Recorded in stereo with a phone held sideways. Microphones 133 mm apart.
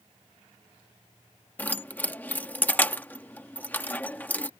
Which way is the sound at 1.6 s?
15° left (ahead or behind).